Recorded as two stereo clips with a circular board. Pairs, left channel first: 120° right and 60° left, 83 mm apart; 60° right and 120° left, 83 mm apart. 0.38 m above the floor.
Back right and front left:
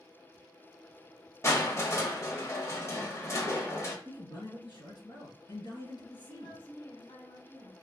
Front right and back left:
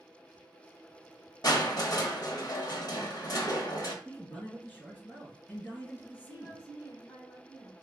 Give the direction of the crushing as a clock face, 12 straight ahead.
3 o'clock.